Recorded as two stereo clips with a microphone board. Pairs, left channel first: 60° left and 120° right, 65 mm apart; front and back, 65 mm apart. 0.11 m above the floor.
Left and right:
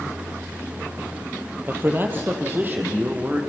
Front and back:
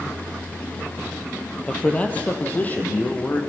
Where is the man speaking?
70° right, 2.5 m; by 3.4 s 60° right, 3.5 m.